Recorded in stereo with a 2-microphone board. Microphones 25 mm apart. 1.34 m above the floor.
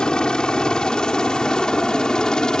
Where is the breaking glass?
I don't hear breaking glass.